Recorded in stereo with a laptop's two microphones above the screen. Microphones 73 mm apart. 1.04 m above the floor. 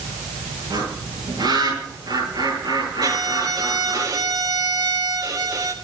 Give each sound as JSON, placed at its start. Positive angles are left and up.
{"t": 0.7, "sound": "a bird", "side_deg": -80, "distance_m": 10.0}
{"t": 3.0, "sound": "a violin", "side_deg": -70, "distance_m": 3.0}